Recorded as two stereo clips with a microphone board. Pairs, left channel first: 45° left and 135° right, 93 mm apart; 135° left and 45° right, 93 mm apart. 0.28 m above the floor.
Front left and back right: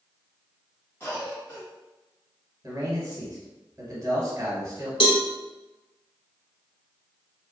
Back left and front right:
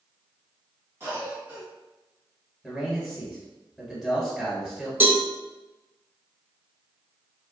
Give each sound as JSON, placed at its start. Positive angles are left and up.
{"t": 1.0, "sound": "a cough", "azimuth_deg": 0, "distance_m": 1.2}
{"t": 2.6, "sound": "a man speaking", "azimuth_deg": -135, "distance_m": 1.6}
{"t": 5.0, "sound": "a cowbell", "azimuth_deg": 20, "distance_m": 0.6}